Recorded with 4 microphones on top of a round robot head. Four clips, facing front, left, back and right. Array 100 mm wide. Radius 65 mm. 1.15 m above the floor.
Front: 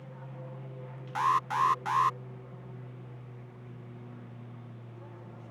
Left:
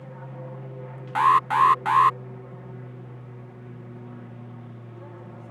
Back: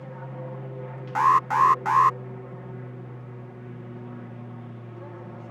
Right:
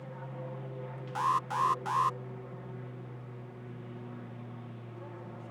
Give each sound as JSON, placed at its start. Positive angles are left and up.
{"t": 0.0, "sound": "an aircraft", "azimuth_deg": 165}
{"t": 1.1, "sound": "an alarm", "azimuth_deg": 130}